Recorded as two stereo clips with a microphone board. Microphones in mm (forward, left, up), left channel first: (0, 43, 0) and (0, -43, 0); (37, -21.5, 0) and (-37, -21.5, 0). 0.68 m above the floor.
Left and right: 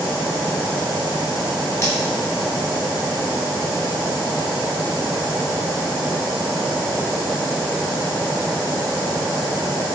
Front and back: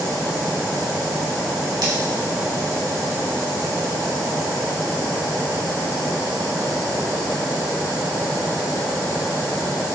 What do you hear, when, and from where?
1.8 s cutlery clinking: 145° left, 3 m